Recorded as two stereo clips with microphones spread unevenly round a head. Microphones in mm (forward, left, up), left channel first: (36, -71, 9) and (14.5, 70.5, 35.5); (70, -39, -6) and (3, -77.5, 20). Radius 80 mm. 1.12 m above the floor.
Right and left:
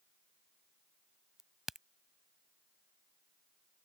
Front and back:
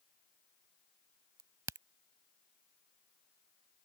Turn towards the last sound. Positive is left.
turn(degrees=180)